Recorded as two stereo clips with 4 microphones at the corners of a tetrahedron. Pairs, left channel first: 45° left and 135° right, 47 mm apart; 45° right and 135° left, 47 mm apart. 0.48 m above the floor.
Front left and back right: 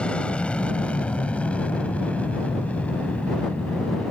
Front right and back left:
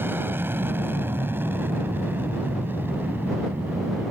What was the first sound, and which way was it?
An aircraft, 110° left.